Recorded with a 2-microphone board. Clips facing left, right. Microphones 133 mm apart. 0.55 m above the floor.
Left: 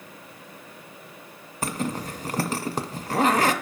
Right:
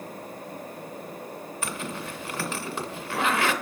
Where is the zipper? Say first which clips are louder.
Left 7 dB; 40° left (ahead or behind), 0.5 m.